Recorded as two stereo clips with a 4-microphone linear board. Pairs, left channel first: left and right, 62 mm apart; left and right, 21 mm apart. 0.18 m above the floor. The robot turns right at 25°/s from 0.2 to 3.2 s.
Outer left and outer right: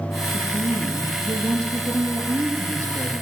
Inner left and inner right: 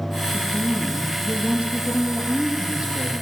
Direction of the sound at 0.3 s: 115° right.